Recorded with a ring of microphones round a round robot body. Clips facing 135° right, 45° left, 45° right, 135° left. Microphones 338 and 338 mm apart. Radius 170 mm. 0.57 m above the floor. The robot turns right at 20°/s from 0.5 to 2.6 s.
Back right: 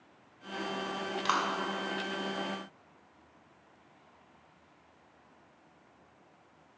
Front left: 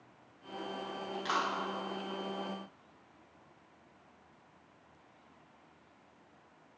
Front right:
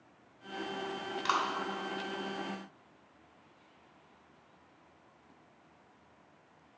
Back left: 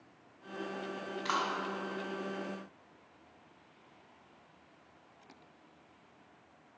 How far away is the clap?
About 2 m.